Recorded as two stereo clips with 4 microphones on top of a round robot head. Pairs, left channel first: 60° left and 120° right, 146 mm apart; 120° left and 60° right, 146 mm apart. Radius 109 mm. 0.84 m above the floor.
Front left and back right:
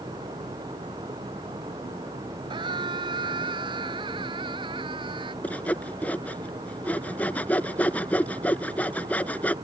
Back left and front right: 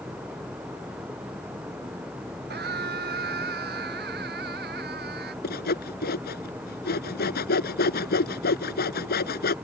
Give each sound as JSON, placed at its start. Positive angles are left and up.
{"t": 2.5, "sound": "a scream", "azimuth_deg": -60}
{"t": 5.4, "sound": "sawing", "azimuth_deg": 140}